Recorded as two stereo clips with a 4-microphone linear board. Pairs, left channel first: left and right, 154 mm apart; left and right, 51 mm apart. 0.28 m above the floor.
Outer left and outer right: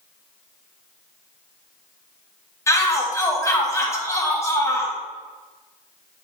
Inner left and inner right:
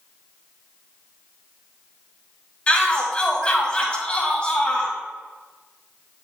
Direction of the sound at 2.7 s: 20° left (ahead or behind).